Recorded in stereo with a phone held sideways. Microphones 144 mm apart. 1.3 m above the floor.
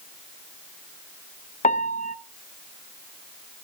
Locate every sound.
1.6 s a piano: 60° left (ahead or behind), 0.7 m